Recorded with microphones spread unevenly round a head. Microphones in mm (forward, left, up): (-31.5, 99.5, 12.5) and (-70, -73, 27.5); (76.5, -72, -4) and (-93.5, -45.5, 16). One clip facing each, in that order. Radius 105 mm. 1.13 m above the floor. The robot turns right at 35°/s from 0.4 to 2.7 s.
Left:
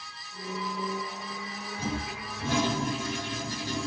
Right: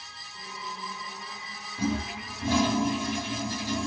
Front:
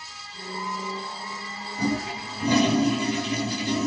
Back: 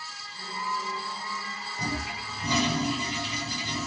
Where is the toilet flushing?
70° right, 2.0 m; by 3.9 s 40° right, 2.0 m.